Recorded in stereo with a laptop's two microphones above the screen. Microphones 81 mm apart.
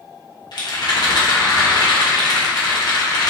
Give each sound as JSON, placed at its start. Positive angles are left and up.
{"t": 0.5, "sound": "a rattle", "side_deg": 55, "distance_m": 0.7}